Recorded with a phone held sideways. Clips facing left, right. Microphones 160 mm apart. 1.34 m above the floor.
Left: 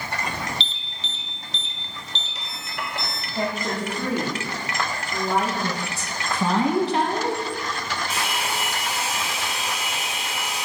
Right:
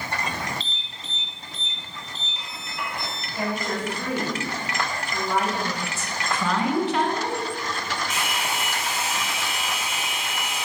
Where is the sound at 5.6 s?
35° left (ahead or behind), 1.7 m.